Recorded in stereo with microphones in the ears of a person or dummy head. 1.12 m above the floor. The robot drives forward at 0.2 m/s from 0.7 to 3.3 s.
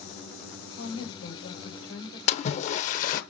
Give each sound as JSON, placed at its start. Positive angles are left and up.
{"t": 0.7, "sound": "a woman speaking", "side_deg": 80, "distance_m": 5.0}
{"t": 2.3, "sound": "a splash", "side_deg": 40, "distance_m": 0.8}